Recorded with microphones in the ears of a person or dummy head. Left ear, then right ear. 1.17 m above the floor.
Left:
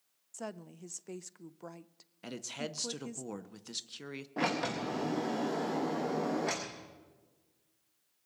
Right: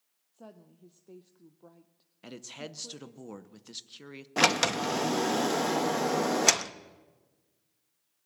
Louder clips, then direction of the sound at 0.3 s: Left 8 dB; 55° left (ahead or behind).